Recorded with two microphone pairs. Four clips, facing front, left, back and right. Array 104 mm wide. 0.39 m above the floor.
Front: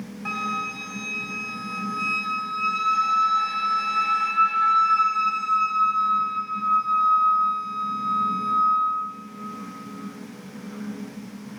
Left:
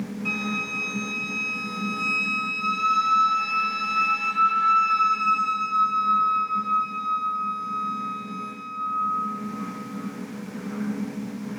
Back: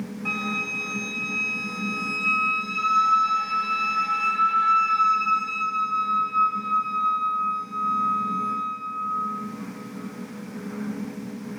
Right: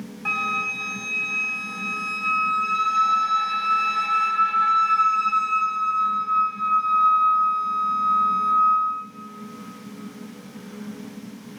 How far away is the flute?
About 0.7 m.